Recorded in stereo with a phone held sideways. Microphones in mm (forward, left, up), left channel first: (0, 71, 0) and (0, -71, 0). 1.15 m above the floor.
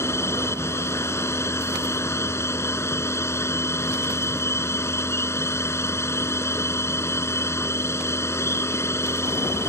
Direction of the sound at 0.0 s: 20° left (ahead or behind).